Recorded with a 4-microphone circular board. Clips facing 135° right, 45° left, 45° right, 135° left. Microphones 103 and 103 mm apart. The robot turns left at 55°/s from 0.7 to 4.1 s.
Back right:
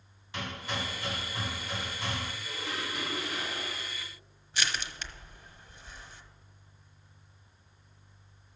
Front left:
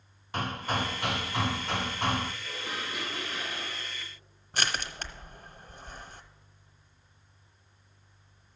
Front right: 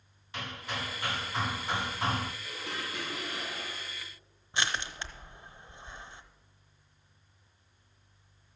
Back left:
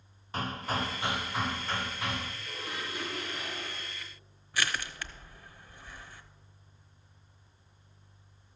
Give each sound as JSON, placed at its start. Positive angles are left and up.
{"t": 0.3, "sound": "hammering", "azimuth_deg": 85, "distance_m": 0.5}
{"t": 2.4, "sound": "dishes clattering", "azimuth_deg": -20, "distance_m": 5.0}
{"t": 4.5, "sound": "crushing", "azimuth_deg": 15, "distance_m": 0.7}